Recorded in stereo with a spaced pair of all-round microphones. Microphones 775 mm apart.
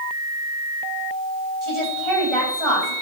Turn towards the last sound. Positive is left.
turn(degrees=-35)  # may be behind; listen again after turning